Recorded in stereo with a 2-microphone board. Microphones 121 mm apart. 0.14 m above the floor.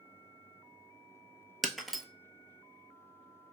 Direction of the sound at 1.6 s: Centre (ahead or behind).